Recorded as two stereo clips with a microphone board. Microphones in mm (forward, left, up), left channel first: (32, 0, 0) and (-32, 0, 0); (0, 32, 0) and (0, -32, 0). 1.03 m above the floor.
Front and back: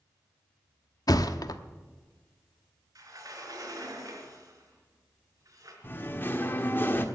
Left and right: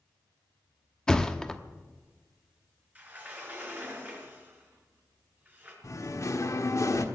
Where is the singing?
60° left, 1.3 m.